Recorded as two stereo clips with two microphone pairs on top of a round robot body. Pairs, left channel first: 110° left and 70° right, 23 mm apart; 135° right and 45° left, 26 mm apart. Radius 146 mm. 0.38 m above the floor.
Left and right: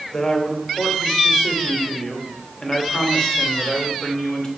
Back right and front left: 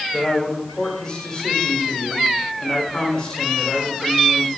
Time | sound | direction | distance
0.1 | a man speaking | 160° left | 3 m